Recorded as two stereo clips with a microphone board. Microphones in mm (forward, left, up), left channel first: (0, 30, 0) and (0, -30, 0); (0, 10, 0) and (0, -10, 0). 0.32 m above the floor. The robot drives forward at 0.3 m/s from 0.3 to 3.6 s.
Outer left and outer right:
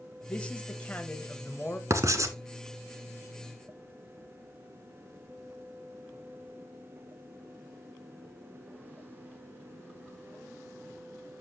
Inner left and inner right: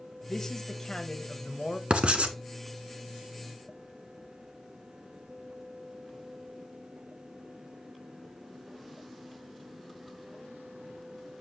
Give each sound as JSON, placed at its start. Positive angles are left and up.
{"t": 0.3, "sound": "a man speaking", "side_deg": 20, "distance_m": 1.4}
{"t": 1.9, "sound": "writing", "side_deg": -55, "distance_m": 1.1}